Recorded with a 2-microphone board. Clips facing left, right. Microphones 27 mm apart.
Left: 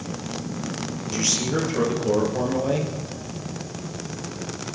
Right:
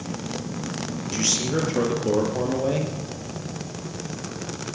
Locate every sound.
1.0 s a man speaking: centre (ahead or behind), 3.5 m